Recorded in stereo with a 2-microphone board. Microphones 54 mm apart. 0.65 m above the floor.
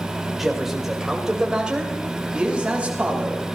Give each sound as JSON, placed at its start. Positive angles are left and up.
{"t": 0.4, "sound": "a man speaking", "side_deg": -5, "distance_m": 2.5}